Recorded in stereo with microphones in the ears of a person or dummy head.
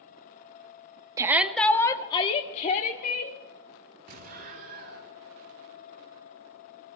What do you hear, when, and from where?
1.2 s a shout: 20° right (ahead or behind), 0.8 m; by 3.4 s 50° left (ahead or behind), 1.8 m
4.1 s an explosion: 55° right (ahead or behind), 3.5 m